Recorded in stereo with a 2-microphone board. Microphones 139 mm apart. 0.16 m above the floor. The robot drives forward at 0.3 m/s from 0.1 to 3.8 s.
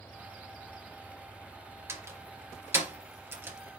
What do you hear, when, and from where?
1.9 s a door slam: 20° right (ahead or behind), 1.8 m; by 3.6 s 15° right (ahead or behind), 2 m